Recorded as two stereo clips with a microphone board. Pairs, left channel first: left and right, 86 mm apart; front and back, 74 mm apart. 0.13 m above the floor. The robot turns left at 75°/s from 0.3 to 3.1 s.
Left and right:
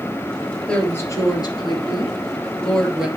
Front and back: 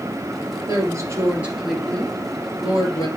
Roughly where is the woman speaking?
Behind.